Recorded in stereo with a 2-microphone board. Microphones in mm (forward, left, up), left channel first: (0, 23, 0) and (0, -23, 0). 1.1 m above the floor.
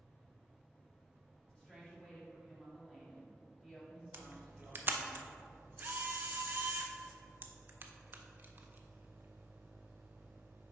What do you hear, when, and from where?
1.5 s a woman speaking: 5° left (ahead or behind), 2.0 m
4.1 s a camera shutter: 45° right (ahead or behind), 0.5 m